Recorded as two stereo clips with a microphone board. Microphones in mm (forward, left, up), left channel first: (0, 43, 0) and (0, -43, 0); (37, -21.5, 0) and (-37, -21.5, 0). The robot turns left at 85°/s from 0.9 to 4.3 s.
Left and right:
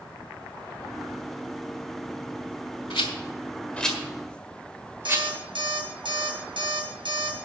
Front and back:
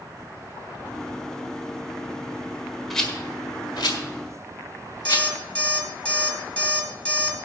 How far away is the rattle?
About 1.5 m.